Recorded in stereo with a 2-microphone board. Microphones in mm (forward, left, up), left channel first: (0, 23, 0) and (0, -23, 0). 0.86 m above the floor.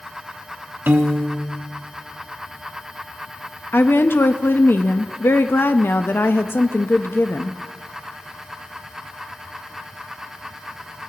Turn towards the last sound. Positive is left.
turn(degrees=55)  # may be behind; listen again after turning